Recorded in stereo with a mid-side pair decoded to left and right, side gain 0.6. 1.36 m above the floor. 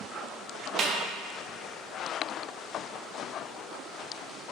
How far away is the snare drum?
About 0.6 m.